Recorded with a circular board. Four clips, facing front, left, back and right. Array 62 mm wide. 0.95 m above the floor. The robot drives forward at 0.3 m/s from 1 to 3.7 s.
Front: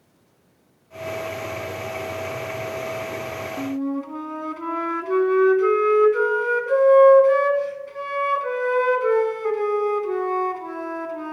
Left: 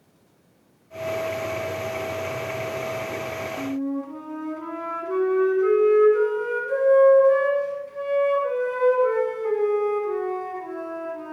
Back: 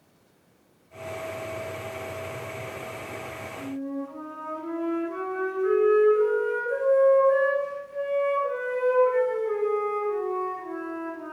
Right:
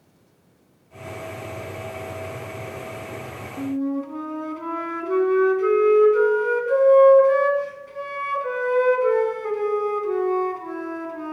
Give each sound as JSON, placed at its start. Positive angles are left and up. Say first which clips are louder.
{"t": 3.6, "sound": "a flute", "louder": "right 5 dB, front 6 dB", "azimuth_deg": -15, "distance_m": 1.9}